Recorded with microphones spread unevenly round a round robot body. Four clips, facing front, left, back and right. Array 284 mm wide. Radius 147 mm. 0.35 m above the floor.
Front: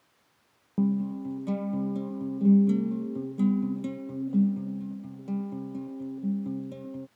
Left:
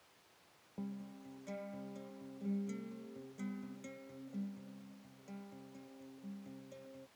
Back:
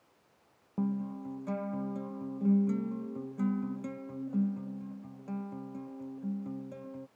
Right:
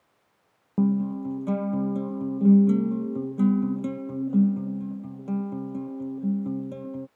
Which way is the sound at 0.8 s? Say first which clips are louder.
Right 23 dB, front 7 dB; 70° right.